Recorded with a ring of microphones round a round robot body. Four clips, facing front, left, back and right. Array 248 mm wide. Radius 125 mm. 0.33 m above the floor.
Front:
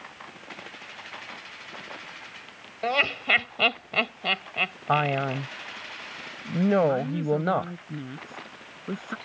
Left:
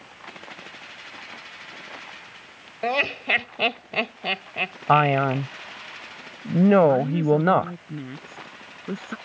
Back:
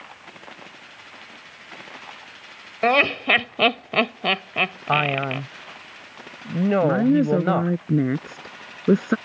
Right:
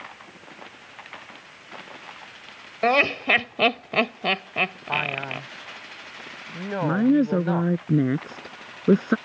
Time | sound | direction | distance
2.8 | laughter | 150° right | ?
4.9 | a man speaking | 100° left | ?
6.8 | a woman speaking | 140° right | ?